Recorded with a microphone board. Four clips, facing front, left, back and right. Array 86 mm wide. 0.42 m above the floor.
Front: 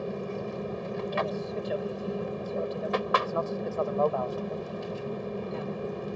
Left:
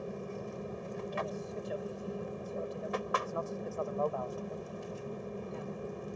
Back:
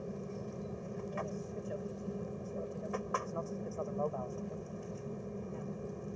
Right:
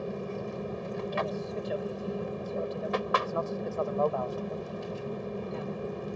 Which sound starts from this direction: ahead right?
An aircraft, at 0.0 s.